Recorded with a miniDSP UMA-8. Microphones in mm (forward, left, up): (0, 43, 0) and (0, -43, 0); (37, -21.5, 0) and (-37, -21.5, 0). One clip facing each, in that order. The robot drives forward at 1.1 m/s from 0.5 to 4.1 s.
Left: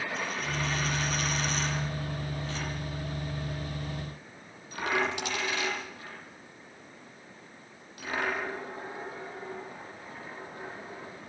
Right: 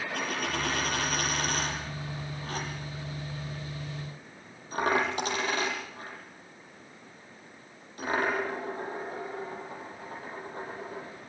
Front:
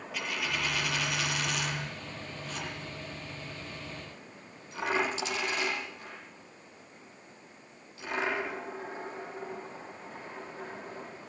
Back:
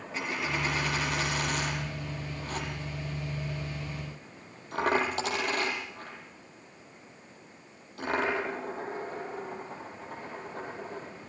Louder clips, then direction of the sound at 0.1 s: Right 1 dB, back 2 dB; 120° right.